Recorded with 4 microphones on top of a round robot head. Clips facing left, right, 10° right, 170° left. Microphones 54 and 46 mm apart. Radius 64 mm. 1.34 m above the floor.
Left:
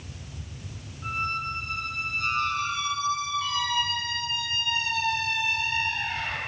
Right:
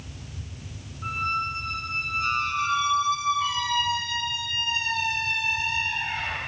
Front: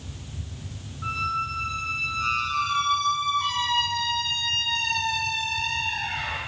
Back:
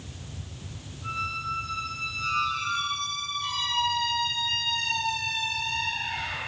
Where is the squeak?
15° right, 6 m.